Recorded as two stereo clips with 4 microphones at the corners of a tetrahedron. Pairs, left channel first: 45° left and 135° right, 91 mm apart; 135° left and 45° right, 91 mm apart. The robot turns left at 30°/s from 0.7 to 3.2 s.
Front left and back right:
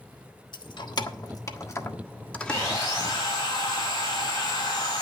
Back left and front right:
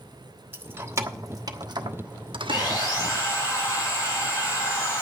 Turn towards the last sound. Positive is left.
turn(degrees=75)